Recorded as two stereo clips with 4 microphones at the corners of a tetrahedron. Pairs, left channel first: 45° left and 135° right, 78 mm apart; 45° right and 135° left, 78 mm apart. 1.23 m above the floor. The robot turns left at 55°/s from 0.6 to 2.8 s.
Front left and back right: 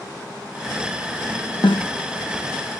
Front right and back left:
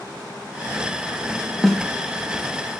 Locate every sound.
1.6 s a snare drum: 45° left, 1.1 m; by 1.9 s 30° left, 1.1 m